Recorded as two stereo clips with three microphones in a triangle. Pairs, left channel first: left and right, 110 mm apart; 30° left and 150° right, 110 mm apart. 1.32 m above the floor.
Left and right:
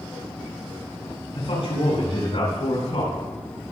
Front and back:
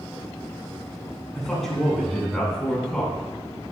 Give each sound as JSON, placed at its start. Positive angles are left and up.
{"t": 1.4, "sound": "a man speaking", "azimuth_deg": 115, "distance_m": 6.0}